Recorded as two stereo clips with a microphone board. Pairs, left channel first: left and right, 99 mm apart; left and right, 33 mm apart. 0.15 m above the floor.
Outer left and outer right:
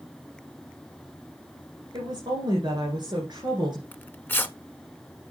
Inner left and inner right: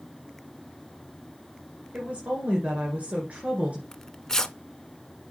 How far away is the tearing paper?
About 0.5 m.